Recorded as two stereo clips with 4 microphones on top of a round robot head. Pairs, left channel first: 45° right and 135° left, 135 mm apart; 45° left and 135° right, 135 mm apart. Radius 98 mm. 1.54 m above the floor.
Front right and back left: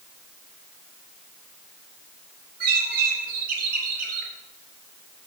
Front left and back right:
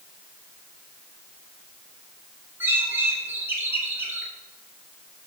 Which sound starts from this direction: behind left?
A bird, at 2.6 s.